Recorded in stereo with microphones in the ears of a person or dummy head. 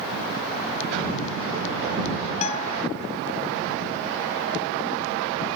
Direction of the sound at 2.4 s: 35° left (ahead or behind).